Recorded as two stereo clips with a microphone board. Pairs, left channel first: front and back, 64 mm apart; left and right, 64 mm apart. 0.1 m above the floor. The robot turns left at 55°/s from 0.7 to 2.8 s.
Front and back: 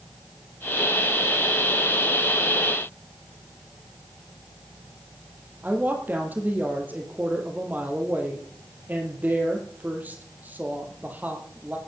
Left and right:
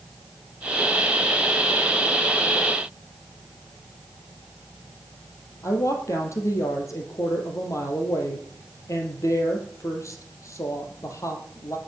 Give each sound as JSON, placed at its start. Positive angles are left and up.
{"t": 5.6, "sound": "a woman speaking", "azimuth_deg": 120, "distance_m": 3.0}